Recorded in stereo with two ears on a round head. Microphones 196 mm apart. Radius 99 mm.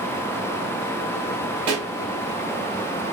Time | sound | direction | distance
1.7 | a pop | 65° right (ahead or behind) | 1.4 m